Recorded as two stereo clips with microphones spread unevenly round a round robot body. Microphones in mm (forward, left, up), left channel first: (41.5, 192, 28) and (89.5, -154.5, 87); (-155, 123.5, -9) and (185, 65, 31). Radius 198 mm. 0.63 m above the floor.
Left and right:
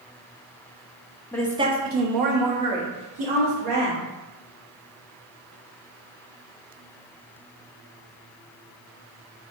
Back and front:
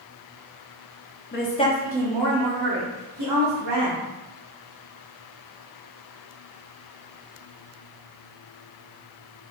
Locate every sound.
1.3 s a woman speaking: 165° left, 0.8 m; by 4.0 s 55° right, 2.5 m